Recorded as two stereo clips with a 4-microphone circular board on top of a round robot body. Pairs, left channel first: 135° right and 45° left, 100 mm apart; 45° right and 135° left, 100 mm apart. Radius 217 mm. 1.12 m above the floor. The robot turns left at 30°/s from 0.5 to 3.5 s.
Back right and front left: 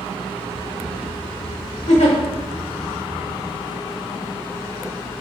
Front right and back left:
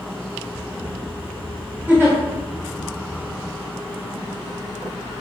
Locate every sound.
1.9 s a giggle: 150° right, 1.0 m; by 2.2 s 160° right, 1.0 m